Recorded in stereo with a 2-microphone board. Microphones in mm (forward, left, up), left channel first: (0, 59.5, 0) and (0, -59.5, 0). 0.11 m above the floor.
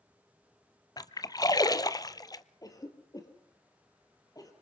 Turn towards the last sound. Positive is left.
turn(degrees=30)  # may be behind; listen again after turning